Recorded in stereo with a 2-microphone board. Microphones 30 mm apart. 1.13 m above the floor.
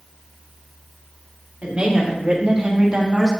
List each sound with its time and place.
1.6 s a woman speaking: 45° right (ahead or behind), 2.5 m; by 3.3 s 25° right (ahead or behind), 1.5 m